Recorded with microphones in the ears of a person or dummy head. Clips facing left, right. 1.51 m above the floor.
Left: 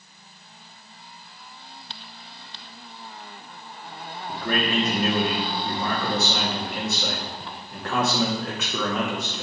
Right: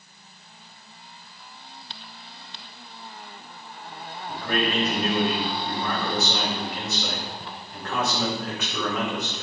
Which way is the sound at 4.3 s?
55° left (ahead or behind).